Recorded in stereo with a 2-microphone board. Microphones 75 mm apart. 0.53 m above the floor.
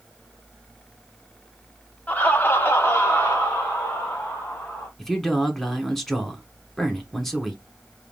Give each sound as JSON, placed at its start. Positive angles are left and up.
{"t": 2.1, "sound": "laughter", "side_deg": 20, "distance_m": 1.1}
{"t": 5.0, "sound": "a man speaking", "side_deg": 5, "distance_m": 1.3}